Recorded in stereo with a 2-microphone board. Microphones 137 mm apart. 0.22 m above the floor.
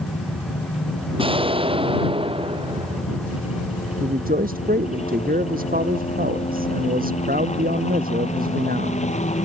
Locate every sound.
0.0 s a helicopter: 45° left (ahead or behind); by 9.4 s 50° left (ahead or behind)
1.2 s an explosion: 40° right (ahead or behind)
4.0 s a man speaking: 85° right